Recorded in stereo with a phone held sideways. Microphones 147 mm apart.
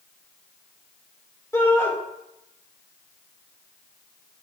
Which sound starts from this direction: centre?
A shout, at 1.5 s.